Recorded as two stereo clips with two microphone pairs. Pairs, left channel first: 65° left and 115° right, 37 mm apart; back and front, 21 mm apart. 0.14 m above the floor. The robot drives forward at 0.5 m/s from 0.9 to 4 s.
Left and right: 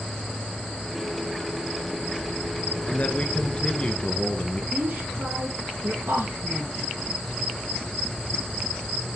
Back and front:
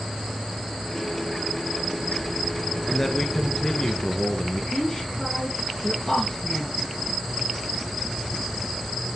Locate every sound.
2.9 s a man speaking: 105° left, 1.7 m; by 4.6 s 125° left, 1.9 m
4.7 s a woman speaking: 105° right, 4 m